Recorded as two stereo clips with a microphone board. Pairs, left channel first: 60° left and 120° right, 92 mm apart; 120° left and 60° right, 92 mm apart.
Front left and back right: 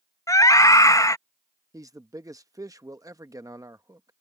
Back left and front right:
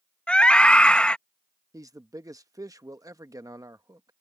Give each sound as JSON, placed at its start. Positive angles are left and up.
{"t": 0.3, "sound": "a scream", "azimuth_deg": 50}
{"t": 1.7, "sound": "a man speaking", "azimuth_deg": -90}